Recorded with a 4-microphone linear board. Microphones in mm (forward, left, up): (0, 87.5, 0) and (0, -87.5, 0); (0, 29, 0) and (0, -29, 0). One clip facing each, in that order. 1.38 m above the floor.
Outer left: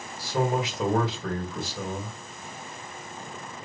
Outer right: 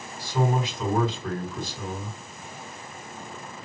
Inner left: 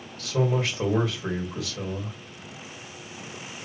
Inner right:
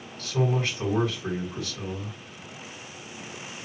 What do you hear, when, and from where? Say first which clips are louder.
0.2 s a man speaking: even, inner left 1 dB; 80° left, 2 m